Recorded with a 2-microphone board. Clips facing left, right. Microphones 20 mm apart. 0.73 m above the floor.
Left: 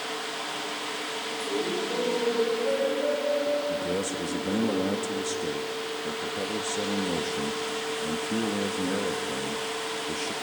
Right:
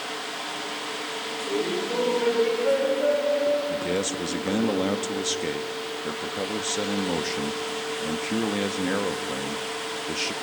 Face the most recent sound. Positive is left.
turn(degrees=-40)  # may be behind; listen again after turning